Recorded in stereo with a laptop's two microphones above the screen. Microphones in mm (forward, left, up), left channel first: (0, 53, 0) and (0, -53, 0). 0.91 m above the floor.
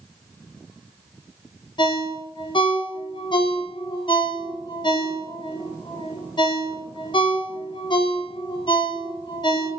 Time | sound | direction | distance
1.8 | a ringtone | 50° left (ahead or behind) | 0.6 m